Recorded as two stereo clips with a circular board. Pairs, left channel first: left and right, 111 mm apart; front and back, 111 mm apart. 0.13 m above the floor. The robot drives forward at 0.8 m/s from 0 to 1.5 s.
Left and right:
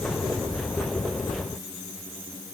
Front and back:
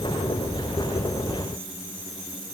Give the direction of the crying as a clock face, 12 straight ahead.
I don't hear crying.